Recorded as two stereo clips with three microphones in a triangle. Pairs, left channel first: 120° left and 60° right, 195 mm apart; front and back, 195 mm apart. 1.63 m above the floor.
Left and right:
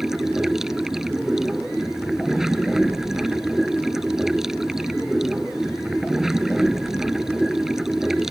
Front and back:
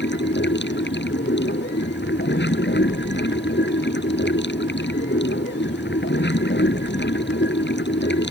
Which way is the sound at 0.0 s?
30° left.